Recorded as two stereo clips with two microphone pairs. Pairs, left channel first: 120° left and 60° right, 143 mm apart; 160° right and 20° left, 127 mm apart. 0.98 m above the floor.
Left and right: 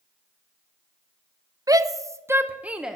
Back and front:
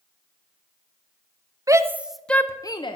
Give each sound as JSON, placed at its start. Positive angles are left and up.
{"t": 1.7, "sound": "a shout", "azimuth_deg": -20, "distance_m": 0.6}